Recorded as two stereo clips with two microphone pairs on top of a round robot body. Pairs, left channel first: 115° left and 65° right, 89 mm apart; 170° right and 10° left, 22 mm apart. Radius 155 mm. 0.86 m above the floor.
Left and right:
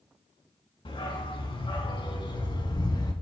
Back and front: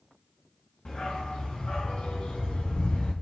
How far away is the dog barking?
About 4.5 m.